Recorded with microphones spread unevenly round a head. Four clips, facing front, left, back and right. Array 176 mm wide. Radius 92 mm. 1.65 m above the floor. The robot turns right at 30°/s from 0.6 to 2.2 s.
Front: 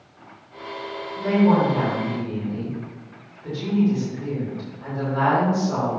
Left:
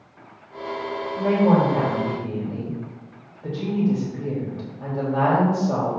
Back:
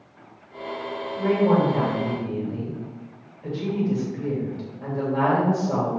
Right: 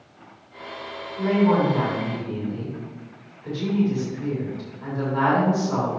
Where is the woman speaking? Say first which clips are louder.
Left 1 dB, front 2 dB; 85° left, 3 m; by 6.0 s 115° left, 3 m.